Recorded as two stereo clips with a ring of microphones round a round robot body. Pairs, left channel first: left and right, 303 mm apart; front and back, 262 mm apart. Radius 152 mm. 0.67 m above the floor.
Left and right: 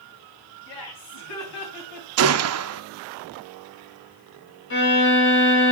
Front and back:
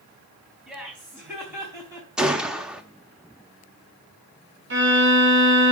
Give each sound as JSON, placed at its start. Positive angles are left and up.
{"t": 0.7, "sound": "laughter", "azimuth_deg": 95, "distance_m": 4.5}
{"t": 2.2, "sound": "a gunshot", "azimuth_deg": -95, "distance_m": 0.7}
{"t": 4.7, "sound": "a violin", "azimuth_deg": 140, "distance_m": 6.0}